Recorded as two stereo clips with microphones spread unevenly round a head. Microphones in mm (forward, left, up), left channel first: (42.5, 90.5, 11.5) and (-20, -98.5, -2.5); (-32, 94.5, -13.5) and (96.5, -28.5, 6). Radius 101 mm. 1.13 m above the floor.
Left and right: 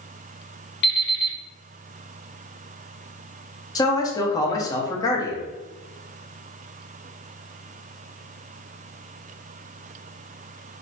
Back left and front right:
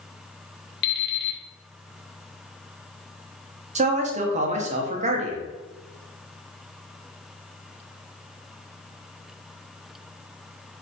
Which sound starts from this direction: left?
An alarm clock, at 0.8 s.